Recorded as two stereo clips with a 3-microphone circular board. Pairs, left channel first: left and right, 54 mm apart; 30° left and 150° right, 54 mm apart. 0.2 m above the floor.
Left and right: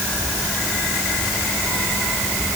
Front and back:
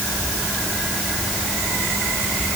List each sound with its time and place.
Only background noise.